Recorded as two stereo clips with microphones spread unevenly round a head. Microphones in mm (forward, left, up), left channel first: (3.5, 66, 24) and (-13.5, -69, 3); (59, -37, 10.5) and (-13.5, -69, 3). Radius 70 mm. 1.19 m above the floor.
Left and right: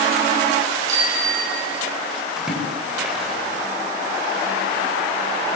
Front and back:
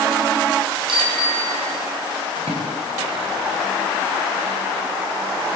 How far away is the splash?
About 9 m.